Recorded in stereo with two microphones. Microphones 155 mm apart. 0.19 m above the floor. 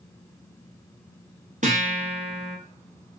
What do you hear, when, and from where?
1.6 s a guitar: 60° right (ahead or behind), 1.1 m